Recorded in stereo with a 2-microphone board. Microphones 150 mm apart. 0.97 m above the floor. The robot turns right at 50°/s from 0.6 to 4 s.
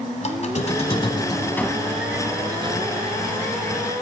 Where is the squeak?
115° left, 1.3 m; by 3.9 s 80° right, 1.3 m.